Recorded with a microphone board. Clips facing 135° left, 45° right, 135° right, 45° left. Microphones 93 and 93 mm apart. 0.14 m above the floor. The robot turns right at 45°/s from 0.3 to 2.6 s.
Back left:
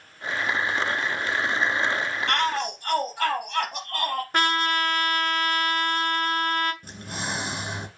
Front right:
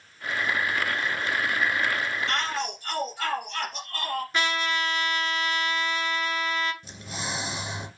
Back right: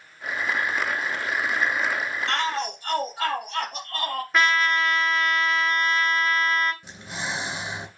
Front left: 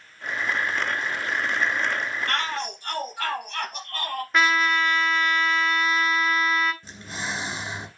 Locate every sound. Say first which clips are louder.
2.3 s a shout: back left 4 dB, back right 2 dB; 160° left, 4 m; by 4.2 s 175° left, 4 m
4.3 s a trumpet: back left 5 dB, even; 135° left, 0.9 m
6.8 s breathing: back left 2 dB, even; 155° left, 2.5 m